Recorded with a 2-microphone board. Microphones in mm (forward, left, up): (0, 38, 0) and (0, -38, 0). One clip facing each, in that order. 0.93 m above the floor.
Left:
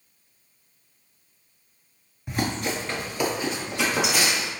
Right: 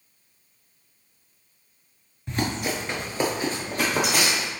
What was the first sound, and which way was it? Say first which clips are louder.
Running footsteps: even; 5° left (ahead or behind).